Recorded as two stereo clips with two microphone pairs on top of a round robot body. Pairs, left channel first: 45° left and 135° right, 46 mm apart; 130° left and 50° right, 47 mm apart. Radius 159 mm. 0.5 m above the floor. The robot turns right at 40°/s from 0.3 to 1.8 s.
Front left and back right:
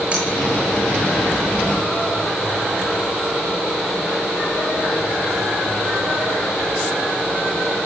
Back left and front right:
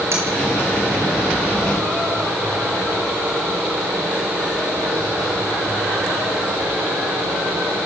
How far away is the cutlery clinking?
About 8.5 m.